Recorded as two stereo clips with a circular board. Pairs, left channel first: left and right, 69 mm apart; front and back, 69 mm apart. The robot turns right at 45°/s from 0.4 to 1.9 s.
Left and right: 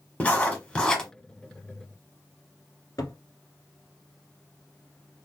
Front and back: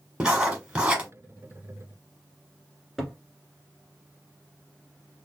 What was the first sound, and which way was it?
Writing, 125° left.